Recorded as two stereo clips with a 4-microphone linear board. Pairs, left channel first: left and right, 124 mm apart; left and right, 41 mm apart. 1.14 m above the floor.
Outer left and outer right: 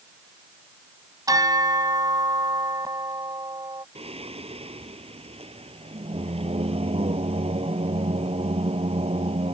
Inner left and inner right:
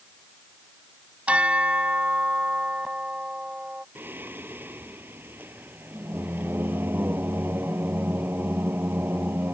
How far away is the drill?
No drill in this recording.